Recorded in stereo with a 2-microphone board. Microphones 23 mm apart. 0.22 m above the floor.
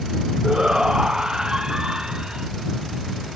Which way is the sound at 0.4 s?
35° right (ahead or behind).